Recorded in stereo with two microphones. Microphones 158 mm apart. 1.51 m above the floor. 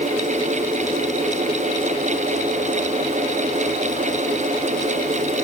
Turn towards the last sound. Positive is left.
No sound to turn to.